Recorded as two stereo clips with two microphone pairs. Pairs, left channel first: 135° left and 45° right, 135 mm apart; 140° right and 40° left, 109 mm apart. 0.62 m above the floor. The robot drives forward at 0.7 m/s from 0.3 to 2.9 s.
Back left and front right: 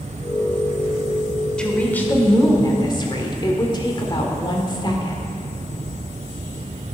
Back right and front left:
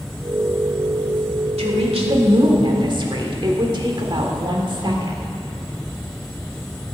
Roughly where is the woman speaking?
Ahead left.